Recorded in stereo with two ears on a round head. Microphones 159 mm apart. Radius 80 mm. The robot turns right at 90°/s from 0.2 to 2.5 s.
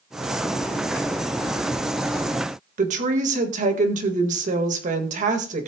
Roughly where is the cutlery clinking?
No cutlery clinking in this recording.